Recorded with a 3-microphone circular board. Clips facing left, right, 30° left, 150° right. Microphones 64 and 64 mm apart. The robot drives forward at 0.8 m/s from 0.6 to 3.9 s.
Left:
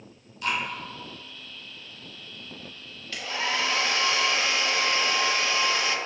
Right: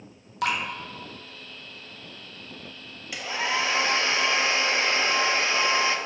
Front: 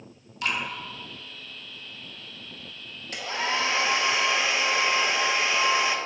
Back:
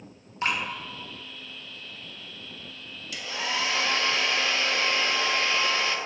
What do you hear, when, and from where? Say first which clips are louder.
0.4 s dripping: right 2 dB, back 1 dB; 90° right, 1.4 m
3.1 s a hair dryer: right 1 dB, front 3 dB; 15° right, 1.0 m; by 6.0 s 40° right, 0.5 m